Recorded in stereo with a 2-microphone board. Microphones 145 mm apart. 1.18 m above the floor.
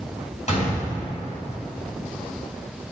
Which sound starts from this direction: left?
A gunshot, at 0.5 s.